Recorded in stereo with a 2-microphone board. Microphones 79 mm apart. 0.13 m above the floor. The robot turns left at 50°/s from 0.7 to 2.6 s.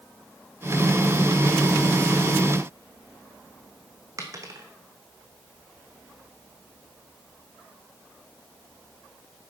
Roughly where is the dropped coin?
Right.